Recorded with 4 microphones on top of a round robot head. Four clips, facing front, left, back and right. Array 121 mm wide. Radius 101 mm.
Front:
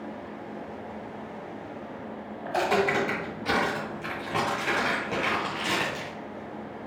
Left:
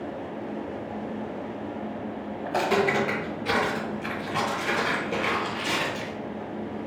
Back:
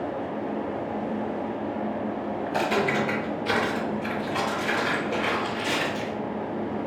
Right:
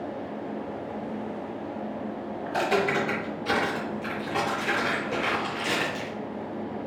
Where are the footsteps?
75° left, 1.7 m; by 6.1 s 45° right, 1.3 m.